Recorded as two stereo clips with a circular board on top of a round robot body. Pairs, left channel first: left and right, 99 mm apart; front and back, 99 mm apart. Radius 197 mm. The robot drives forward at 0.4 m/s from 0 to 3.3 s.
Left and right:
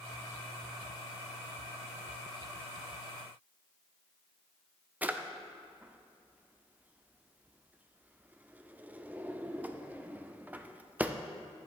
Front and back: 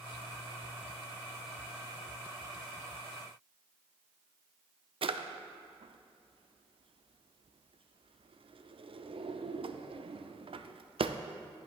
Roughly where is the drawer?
Behind.